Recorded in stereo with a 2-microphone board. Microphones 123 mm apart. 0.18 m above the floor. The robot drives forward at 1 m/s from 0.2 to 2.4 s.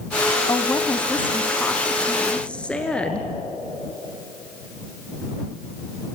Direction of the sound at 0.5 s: 20° left (ahead or behind).